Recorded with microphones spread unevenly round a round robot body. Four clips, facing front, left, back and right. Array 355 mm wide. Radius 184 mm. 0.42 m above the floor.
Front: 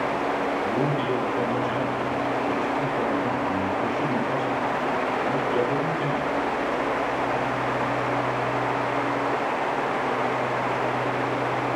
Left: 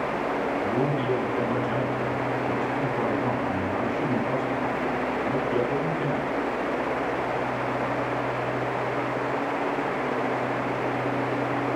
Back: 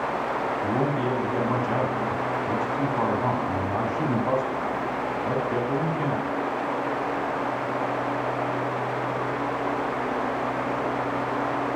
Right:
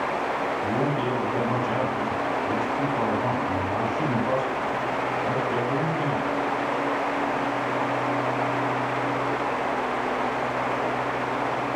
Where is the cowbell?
No cowbell in this recording.